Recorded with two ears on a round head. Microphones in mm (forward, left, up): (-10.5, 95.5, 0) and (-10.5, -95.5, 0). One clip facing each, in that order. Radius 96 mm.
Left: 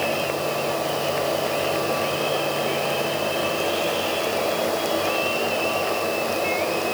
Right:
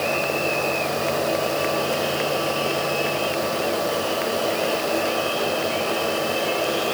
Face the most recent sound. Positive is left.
No sound to turn to.